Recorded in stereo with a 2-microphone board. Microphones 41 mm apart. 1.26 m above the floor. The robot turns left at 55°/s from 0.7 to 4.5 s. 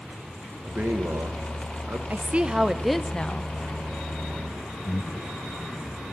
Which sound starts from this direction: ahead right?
A man speaking, at 0.6 s.